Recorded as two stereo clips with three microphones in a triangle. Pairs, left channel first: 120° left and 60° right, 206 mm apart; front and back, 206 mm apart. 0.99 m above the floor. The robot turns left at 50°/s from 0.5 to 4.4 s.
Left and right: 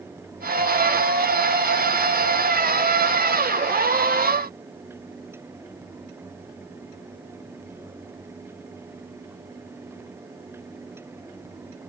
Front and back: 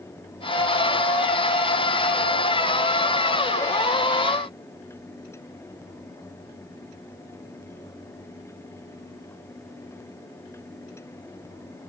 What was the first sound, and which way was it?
Only background noise.